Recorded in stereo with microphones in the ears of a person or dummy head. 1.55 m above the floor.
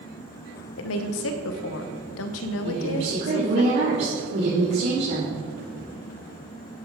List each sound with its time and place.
0.8 s a woman speaking: 70° left (ahead or behind), 1.0 m
2.6 s a woman speaking: 65° right (ahead or behind), 3 m